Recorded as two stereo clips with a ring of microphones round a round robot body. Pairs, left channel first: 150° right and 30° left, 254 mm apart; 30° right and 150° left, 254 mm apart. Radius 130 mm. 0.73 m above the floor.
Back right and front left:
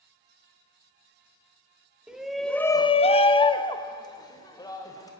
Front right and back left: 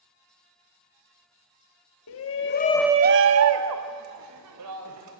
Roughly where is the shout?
Ahead right.